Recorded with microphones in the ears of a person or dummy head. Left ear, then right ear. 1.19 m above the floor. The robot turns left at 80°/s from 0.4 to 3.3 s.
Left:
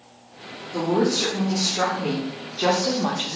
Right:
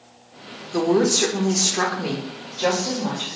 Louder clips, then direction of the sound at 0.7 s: Right 3 dB; 45° right.